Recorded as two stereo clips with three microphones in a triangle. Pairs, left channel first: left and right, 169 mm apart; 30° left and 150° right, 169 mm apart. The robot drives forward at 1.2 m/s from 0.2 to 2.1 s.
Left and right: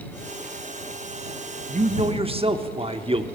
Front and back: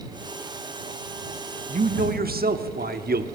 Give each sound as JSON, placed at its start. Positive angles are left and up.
{"t": 1.7, "sound": "a man speaking", "azimuth_deg": -120, "distance_m": 0.8}